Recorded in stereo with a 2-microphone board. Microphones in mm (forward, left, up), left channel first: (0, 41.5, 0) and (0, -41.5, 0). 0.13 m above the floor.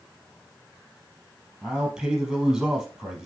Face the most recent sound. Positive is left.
turn(degrees=-5)  # may be behind; listen again after turning